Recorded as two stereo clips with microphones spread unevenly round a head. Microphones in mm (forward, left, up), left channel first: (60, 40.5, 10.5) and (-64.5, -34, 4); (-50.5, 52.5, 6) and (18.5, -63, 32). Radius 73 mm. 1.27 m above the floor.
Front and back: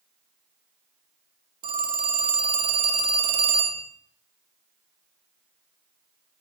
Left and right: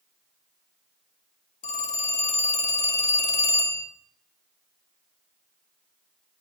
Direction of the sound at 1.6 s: 160° left.